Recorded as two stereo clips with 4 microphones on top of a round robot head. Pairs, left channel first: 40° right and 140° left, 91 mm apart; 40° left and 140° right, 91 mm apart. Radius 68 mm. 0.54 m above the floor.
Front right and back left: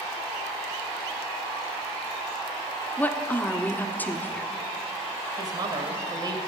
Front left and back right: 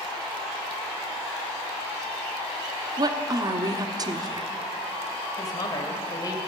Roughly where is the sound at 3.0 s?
Right.